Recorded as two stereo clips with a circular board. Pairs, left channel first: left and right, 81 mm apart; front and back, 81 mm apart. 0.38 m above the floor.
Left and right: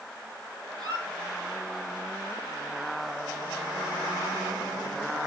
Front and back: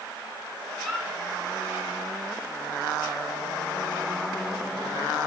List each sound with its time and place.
0.8 s a squeak: 95° left, 6 m